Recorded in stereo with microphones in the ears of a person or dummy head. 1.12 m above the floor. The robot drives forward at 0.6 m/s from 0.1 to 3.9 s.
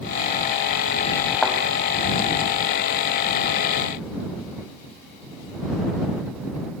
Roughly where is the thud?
Centre.